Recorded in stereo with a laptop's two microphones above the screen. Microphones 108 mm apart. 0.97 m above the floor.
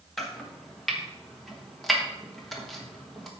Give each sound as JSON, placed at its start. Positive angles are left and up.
{"t": 0.2, "sound": "chopping", "side_deg": 0, "distance_m": 1.3}